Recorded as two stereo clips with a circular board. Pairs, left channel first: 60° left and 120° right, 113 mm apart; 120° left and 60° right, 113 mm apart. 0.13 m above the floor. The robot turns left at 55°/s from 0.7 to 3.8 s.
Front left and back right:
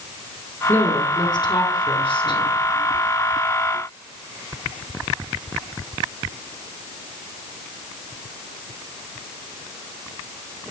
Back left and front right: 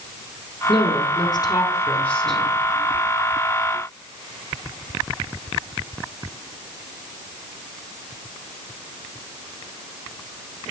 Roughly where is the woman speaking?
Behind left.